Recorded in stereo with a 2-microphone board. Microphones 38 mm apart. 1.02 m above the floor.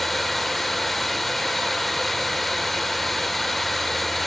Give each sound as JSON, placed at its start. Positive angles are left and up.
{"t": 0.0, "sound": "running water", "side_deg": 5, "distance_m": 1.3}